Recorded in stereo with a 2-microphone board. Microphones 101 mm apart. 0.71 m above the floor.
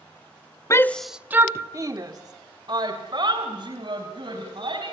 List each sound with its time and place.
0.7 s a shout: 30° left (ahead or behind), 0.6 m; by 4.9 s 55° right (ahead or behind), 4.5 m